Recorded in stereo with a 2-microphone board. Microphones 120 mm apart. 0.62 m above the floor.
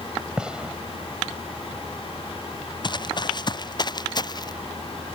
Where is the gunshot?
5° right (ahead or behind).